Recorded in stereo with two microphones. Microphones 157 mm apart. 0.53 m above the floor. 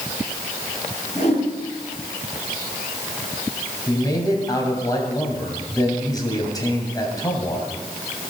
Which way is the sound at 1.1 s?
45° left (ahead or behind).